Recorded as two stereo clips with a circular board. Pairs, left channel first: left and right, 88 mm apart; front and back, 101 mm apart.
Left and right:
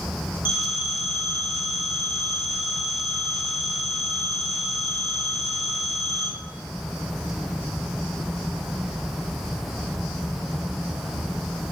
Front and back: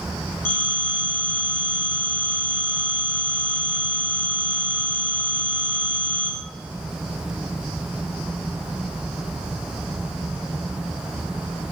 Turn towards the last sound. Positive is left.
turn(degrees=70)